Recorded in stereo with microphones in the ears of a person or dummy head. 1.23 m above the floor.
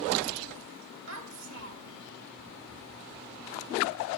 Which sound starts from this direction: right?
A child speaking, at 1.1 s.